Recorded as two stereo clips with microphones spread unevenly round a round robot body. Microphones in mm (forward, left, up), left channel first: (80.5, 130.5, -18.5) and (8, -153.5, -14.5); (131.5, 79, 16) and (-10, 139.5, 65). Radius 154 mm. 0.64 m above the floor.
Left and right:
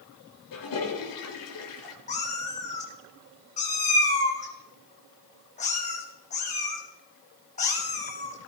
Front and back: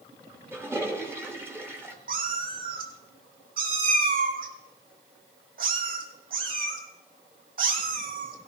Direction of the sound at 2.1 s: 145° left.